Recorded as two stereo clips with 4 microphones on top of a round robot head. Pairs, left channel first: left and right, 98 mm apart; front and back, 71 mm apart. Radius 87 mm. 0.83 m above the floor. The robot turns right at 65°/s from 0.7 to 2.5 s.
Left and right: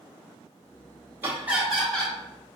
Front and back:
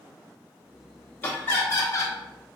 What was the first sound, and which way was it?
Laughter, 40° right.